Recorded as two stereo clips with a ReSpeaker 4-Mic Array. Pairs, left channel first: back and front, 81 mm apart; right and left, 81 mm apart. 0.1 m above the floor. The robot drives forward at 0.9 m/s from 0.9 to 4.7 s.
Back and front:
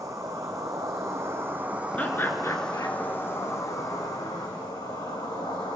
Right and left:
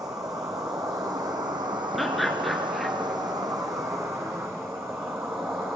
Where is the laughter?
Straight behind, 1.2 m.